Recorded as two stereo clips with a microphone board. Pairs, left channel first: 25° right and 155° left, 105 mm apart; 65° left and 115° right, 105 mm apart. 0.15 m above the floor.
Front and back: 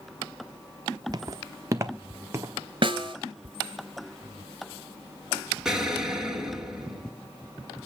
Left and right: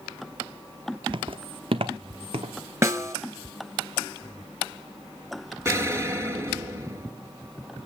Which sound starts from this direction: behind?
A snare drum, at 2.8 s.